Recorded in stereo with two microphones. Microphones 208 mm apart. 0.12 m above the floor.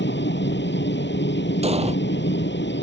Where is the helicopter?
60° left (ahead or behind).